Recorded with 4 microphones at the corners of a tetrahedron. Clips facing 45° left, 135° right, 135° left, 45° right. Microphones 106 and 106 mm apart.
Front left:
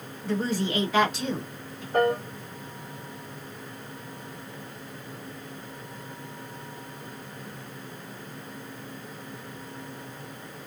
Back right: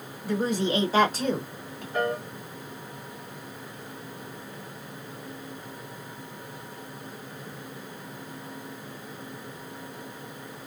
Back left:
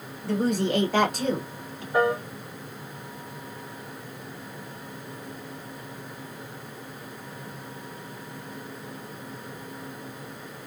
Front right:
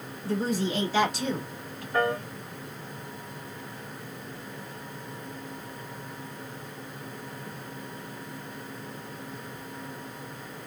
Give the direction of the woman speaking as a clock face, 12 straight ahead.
7 o'clock.